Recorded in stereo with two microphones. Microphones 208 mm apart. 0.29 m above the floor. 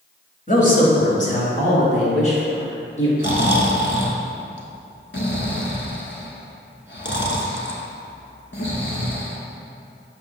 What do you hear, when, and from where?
0.5 s a man speaking: 40° left (ahead or behind), 1.2 m; by 3.1 s 35° left (ahead or behind), 4 m
3.2 s snoring: 60° left (ahead or behind), 0.9 m